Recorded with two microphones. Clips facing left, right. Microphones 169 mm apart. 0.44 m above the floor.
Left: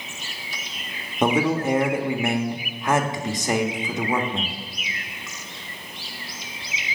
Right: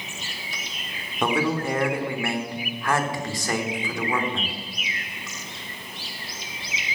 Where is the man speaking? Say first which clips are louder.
Left 3 dB; 20° left (ahead or behind), 0.8 m.